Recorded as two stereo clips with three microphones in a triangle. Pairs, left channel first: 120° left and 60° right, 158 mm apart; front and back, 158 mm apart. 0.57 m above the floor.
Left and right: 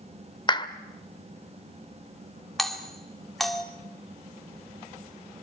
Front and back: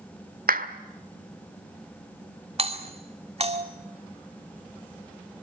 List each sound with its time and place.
0.5 s a clap: 175° left, 1.4 m
2.6 s a doorbell: 150° right, 2.0 m